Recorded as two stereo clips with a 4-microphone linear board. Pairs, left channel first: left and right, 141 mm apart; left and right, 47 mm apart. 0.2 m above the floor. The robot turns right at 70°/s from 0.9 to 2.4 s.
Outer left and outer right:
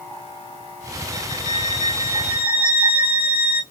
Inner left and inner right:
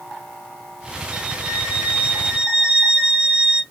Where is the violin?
125° right, 1.2 m; by 3.6 s 35° right, 1.2 m.